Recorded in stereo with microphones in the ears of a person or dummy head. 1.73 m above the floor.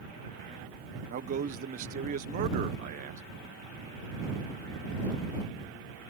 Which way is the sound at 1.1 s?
45° right (ahead or behind).